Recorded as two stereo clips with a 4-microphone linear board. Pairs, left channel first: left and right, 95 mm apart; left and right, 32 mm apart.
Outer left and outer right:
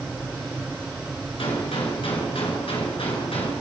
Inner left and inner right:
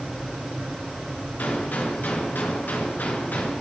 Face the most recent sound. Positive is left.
turn(degrees=75)  # may be behind; listen again after turning